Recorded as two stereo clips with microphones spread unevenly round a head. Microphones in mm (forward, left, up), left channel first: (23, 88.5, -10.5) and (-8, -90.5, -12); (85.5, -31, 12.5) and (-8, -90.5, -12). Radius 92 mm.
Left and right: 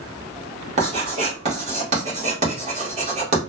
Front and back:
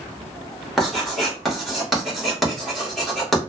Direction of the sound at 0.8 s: 50° right.